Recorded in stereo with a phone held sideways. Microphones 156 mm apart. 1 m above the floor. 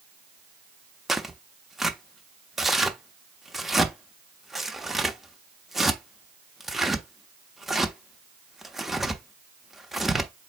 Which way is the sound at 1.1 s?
Centre (ahead or behind).